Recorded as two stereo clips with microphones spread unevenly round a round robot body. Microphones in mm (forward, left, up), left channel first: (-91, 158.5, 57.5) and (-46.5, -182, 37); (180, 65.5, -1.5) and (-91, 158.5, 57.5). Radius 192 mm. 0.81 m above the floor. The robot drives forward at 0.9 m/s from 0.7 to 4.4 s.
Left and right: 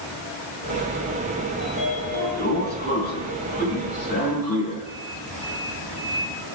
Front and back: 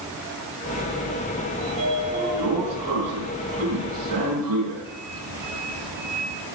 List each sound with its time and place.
1.6 s a sliding door: 160° left, 6.5 m; by 6.3 s 165° left, 8.5 m